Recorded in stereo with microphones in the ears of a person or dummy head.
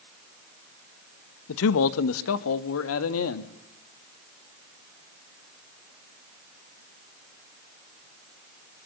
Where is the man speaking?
70° left (ahead or behind), 1.2 m; by 3.5 s 85° left, 2 m.